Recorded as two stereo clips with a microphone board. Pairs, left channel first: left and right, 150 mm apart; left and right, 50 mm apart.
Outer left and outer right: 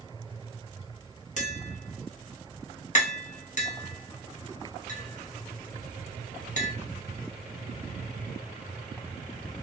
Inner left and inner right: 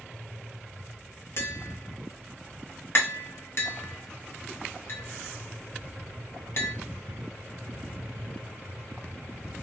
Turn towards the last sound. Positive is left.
turn(degrees=50)  # may be behind; listen again after turning